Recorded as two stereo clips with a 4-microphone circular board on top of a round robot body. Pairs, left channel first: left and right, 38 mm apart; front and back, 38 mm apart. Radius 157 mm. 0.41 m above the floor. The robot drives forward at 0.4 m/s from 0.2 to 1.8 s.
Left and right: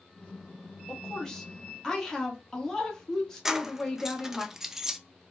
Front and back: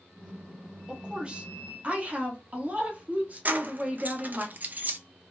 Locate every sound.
0.9 s a woman speaking: 140° left, 1.0 m; by 4.5 s 160° left, 1.2 m
3.5 s keys jangling: 165° right, 0.5 m